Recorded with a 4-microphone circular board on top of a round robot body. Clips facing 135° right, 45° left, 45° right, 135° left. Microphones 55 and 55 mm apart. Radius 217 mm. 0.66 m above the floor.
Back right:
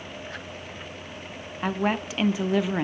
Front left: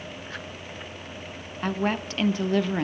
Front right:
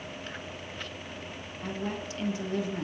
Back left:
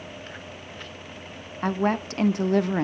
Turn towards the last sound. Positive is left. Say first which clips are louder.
# back right 1 dB, back left 11 dB
turn(degrees=145)